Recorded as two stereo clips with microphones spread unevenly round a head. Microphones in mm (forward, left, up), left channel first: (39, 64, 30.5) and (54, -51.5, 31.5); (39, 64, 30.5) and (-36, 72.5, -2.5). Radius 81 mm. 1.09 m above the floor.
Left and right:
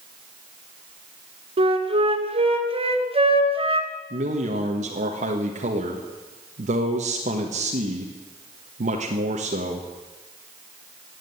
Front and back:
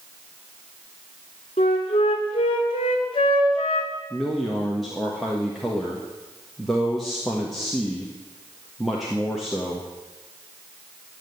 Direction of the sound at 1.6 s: 45° right.